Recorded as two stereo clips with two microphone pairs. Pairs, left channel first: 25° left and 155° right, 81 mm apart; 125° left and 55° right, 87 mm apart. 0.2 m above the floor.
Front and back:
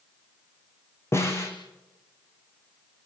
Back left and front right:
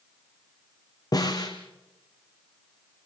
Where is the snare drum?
80° left, 4 m.